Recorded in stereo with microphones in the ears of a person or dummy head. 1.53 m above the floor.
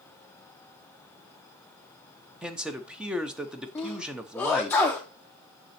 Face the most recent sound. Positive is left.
turn(degrees=5)  # may be behind; listen again after turning